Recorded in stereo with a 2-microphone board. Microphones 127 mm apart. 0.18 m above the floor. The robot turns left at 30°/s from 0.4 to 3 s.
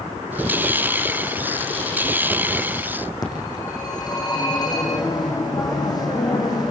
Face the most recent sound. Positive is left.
turn(degrees=30)  # may be behind; listen again after turning